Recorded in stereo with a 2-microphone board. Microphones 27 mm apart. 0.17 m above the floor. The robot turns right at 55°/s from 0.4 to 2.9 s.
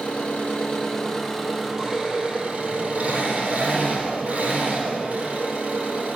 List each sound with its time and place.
0.0 s an engine running: 125° left, 4.5 m; by 6.2 s 100° right, 4.5 m